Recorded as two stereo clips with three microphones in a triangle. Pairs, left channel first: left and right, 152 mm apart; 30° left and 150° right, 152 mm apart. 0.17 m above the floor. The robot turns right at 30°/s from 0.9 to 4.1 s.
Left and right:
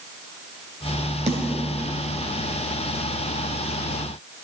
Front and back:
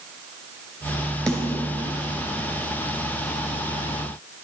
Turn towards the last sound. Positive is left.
turn(degrees=30)